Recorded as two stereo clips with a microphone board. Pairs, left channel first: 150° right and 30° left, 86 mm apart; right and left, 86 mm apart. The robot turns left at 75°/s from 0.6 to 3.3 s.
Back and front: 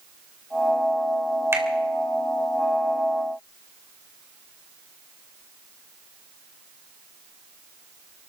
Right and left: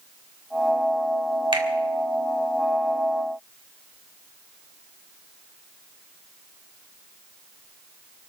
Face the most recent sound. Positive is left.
turn(degrees=-40)